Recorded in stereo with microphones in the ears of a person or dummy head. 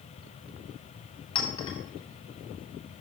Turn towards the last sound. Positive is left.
turn(degrees=25)  # may be behind; listen again after turning